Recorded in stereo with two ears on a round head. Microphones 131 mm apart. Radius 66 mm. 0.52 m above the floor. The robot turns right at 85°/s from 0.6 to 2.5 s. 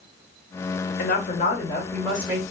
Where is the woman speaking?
85° left, 1.6 m; by 2.4 s 155° right, 1.6 m.